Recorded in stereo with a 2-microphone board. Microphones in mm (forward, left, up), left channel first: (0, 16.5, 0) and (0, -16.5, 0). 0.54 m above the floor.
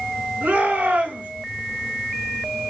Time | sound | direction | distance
0.4 | a shout | 60° right (ahead or behind) | 6.5 m